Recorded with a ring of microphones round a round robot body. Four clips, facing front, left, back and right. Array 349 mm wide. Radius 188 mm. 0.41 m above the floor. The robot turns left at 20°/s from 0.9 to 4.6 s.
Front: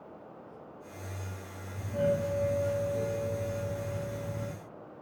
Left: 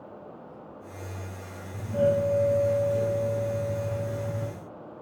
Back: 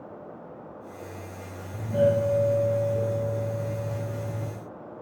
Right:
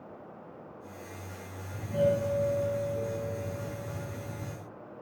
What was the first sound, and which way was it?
A doorbell, 170° right.